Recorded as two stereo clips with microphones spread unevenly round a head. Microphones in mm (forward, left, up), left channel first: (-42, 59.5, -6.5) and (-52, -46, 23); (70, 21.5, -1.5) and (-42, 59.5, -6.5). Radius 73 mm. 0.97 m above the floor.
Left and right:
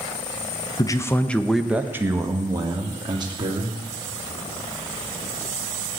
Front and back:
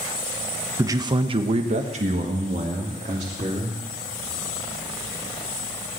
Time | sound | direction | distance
0.8 | a man speaking | 105° left | 1.2 m